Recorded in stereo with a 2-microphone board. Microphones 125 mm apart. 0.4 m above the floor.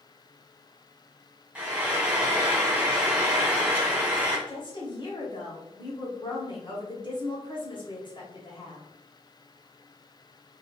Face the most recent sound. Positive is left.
turn(degrees=40)  # may be behind; listen again after turning